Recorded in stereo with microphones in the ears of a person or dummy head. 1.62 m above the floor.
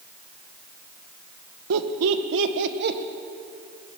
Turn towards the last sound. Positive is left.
turn(degrees=-50)  # may be behind; listen again after turning